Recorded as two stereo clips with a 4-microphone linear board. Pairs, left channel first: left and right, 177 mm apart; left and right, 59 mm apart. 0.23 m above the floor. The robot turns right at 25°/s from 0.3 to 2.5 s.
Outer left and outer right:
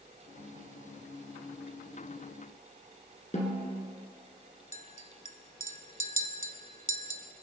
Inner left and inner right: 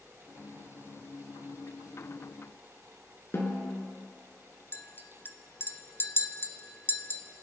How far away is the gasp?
I don't hear a gasp.